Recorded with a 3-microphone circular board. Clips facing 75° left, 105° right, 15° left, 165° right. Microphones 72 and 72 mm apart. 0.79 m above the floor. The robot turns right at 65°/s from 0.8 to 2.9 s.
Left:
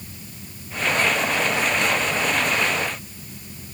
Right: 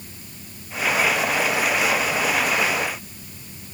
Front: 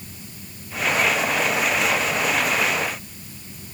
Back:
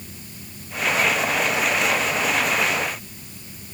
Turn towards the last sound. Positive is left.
No sound to turn to.